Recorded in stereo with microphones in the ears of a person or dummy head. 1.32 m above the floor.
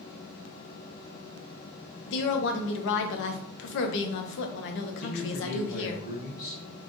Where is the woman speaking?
65° left (ahead or behind), 0.7 m.